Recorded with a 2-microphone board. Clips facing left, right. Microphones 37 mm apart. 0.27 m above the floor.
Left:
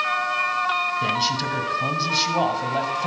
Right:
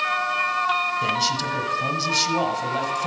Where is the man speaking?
5° left (ahead or behind), 1.2 m.